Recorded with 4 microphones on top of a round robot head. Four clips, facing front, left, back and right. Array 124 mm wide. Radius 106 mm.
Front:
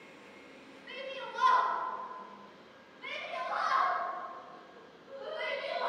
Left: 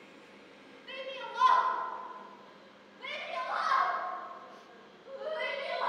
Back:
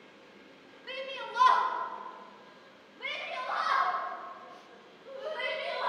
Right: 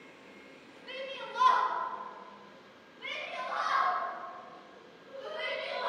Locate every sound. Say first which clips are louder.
0.9 s a shout: even, back 3 dB; 170° right, 2.5 m; by 5.9 s 145° left, 4 m